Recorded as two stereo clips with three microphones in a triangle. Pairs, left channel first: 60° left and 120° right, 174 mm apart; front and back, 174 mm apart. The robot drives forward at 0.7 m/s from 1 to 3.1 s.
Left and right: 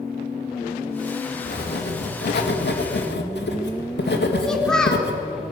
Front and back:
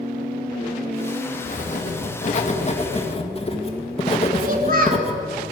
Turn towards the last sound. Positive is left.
turn(degrees=145)